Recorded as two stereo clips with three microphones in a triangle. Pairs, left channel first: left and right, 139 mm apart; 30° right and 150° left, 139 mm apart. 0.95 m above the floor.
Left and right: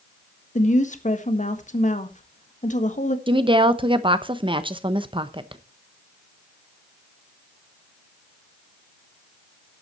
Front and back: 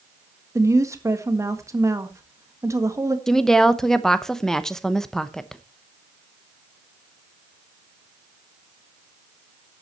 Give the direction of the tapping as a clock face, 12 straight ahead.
No tapping in this recording.